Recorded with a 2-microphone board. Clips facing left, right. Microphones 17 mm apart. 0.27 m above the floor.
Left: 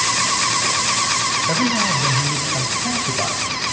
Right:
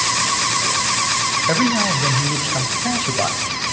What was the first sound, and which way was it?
A man speaking, 25° right (ahead or behind).